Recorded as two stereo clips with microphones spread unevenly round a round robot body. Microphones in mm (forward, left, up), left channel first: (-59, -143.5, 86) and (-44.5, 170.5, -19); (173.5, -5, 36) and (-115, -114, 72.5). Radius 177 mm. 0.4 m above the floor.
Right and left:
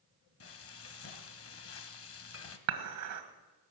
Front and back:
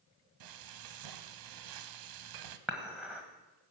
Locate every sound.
0.4 s frying: 145° right, 1.0 m
2.7 s dishes clattering: 110° left, 1.5 m